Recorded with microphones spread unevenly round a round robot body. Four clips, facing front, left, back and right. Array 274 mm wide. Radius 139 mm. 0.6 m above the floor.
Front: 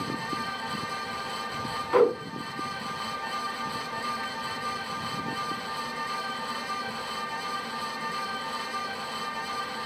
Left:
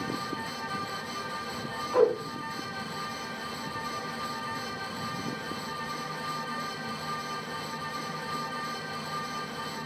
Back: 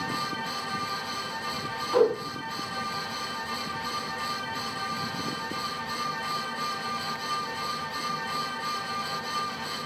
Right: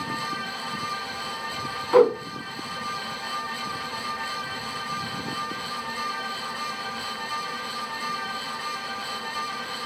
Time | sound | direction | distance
1.9 | a whoosh | 75° right | 1.7 m